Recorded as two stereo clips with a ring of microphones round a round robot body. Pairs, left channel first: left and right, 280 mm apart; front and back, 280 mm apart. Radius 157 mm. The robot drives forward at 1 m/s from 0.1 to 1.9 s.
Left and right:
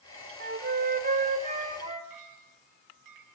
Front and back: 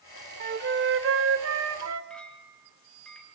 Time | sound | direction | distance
0.4 | a flute | 135° right | 1.8 m
2.1 | a clink | 85° right | 4.5 m